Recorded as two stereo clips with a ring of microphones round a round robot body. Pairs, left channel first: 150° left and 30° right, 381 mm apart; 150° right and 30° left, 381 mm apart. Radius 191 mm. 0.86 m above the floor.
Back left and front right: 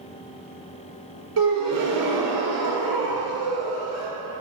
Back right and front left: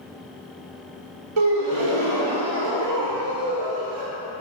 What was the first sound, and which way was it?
A gasp, 20° left.